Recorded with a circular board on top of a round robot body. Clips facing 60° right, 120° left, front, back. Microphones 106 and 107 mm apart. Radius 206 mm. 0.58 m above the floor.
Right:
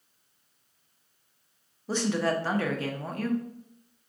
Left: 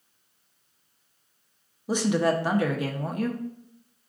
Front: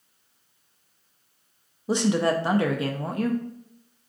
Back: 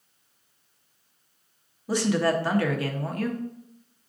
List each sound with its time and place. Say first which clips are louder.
1.9 s a woman speaking: left 4 dB, front 1 dB; 55° left, 0.8 m